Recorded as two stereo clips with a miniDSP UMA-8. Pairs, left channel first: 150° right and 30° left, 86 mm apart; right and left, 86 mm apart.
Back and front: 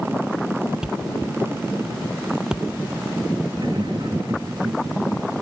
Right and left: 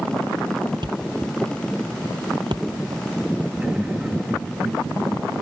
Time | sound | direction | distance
0.8 | a thud | 115° left | ?
3.6 | laughter | 15° left | ?